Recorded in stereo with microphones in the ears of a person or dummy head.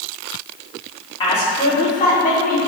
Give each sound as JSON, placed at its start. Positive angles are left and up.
{"t": 1.2, "sound": "a woman speaking", "side_deg": 25, "distance_m": 4.0}